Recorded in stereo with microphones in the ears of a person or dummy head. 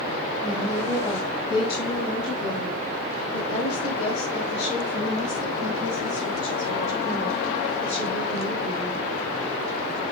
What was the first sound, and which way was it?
A woman speaking, centre (ahead or behind).